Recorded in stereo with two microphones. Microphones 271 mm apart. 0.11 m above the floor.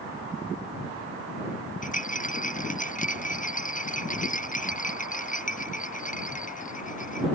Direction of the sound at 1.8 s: 25° left (ahead or behind).